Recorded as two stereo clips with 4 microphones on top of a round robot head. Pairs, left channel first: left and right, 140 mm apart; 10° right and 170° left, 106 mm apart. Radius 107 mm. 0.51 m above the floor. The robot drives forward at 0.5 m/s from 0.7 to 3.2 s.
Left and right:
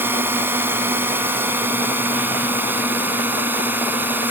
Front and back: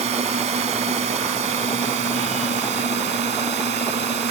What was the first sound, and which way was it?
A drone, 165° right.